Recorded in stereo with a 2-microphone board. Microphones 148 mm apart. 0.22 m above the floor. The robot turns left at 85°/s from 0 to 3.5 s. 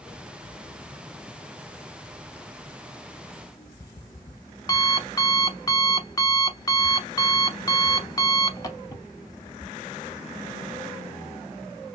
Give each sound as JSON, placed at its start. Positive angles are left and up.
{"t": 3.3, "sound": "an alarm clock", "side_deg": 10, "distance_m": 0.6}